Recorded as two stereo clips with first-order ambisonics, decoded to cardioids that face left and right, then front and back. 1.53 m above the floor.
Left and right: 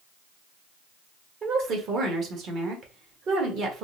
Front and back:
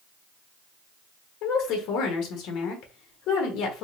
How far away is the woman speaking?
About 1.1 m.